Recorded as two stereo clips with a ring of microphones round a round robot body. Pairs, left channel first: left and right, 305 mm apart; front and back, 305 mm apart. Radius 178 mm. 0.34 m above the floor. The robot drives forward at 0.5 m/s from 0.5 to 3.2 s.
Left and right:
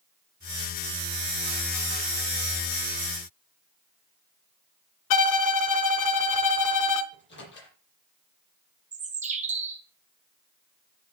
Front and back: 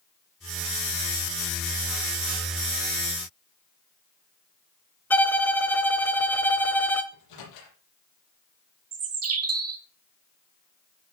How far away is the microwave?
About 7.5 m.